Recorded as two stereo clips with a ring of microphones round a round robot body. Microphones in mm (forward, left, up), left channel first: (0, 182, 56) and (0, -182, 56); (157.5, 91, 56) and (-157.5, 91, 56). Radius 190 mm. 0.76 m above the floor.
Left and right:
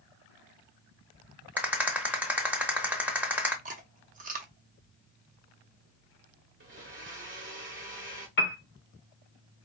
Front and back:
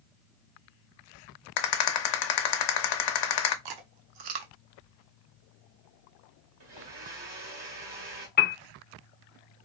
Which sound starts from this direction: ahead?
A rattle, at 1.6 s.